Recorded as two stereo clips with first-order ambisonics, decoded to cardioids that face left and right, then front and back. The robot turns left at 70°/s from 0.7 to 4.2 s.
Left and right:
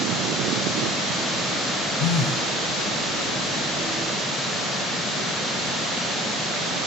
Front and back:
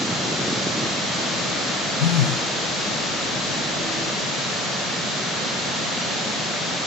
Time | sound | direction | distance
2.0 | a phone buzzing | 40° left | 3 m